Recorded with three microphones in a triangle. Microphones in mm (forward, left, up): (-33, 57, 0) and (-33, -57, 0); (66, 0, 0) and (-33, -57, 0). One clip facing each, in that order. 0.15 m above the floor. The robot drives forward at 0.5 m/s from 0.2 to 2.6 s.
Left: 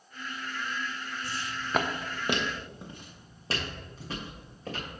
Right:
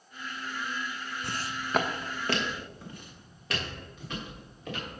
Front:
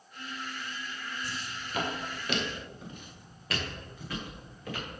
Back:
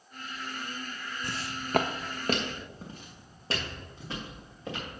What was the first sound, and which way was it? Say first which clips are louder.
Footsteps: right 2 dB, back 3 dB; 110° right.